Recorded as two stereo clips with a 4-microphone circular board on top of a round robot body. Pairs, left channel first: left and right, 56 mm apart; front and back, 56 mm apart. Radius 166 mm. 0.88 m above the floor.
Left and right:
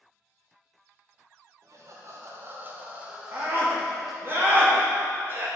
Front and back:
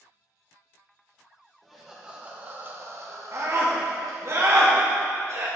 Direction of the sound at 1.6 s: 85° right.